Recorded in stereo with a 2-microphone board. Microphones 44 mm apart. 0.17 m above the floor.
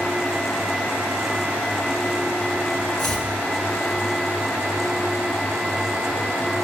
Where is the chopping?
10° left (ahead or behind), 2 m.